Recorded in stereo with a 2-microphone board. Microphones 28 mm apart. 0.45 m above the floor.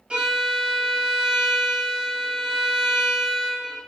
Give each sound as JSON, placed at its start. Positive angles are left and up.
{"t": 0.1, "sound": "a violin", "side_deg": -40, "distance_m": 2.0}